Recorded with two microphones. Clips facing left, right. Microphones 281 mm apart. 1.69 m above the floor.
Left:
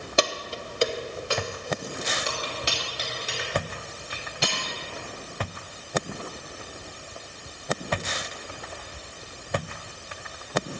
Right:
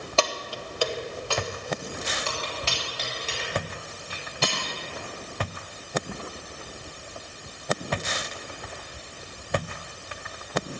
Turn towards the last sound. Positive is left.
turn(degrees=15)  # may be behind; listen again after turning